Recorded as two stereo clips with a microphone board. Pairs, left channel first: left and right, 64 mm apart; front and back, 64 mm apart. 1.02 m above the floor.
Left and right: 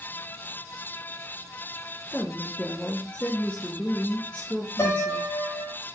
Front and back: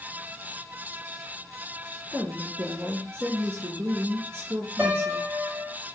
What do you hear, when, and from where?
2.1 s a woman speaking: 155° left, 0.8 m
4.8 s a piano: 125° left, 1.7 m